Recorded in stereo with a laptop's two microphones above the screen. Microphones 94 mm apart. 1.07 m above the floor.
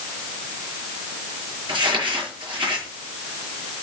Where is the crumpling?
55° right (ahead or behind), 6.5 m.